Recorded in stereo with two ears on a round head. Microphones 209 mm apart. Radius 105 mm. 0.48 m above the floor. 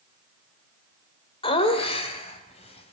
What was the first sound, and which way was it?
Laughter, 25° left (ahead or behind).